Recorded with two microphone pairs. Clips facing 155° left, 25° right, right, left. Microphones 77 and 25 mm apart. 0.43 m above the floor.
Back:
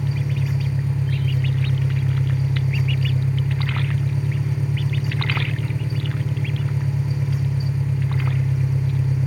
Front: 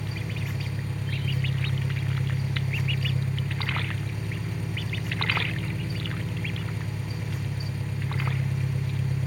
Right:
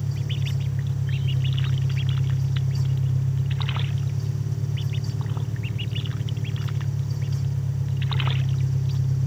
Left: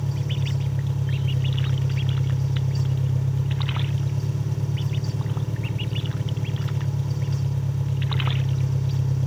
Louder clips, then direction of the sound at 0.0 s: Back 9 dB, left 1 dB; 85° left.